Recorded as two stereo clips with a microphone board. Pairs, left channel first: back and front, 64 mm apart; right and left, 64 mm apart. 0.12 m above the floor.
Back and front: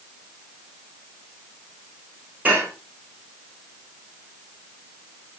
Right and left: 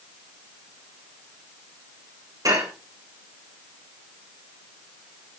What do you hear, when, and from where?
2.5 s dishes clattering: 65° left, 6 m